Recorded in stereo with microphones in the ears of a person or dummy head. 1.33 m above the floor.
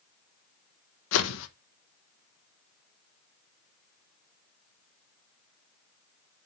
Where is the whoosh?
80° left, 1.0 m.